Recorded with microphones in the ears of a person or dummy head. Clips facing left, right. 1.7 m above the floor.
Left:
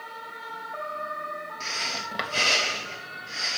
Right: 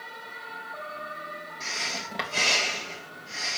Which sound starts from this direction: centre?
Breathing, at 1.6 s.